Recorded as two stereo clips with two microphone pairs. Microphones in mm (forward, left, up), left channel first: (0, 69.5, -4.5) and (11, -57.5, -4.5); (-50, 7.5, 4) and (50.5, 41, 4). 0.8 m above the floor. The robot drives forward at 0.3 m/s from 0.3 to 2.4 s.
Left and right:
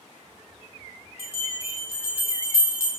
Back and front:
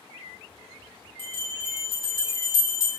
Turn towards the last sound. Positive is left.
turn(degrees=160)